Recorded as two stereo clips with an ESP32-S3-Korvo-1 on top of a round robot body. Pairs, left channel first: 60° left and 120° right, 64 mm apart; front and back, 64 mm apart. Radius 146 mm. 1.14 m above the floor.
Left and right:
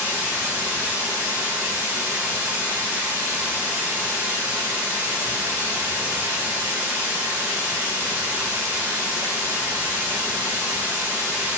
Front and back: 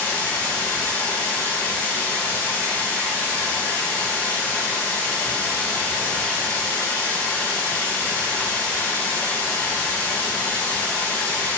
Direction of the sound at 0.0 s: 65° right.